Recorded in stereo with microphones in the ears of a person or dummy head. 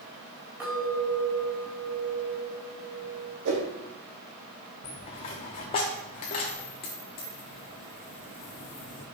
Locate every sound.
0.6 s a clink: 10° right (ahead or behind), 4 m
3.5 s a whoosh: 65° right (ahead or behind), 1.9 m
4.8 s a dropped coin: 25° left (ahead or behind), 0.8 m